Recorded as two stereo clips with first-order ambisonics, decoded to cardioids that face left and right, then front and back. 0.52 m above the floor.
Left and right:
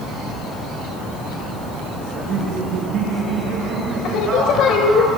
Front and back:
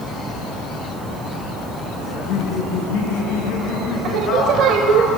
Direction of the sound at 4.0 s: 135° left.